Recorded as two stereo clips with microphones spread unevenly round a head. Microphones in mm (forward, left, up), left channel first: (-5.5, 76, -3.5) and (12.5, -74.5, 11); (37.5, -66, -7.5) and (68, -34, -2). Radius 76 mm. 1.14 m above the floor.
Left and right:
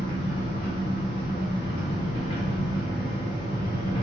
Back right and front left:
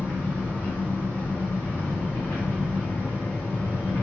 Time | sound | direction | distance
0.0 | an engine running | 160° left | 1.6 m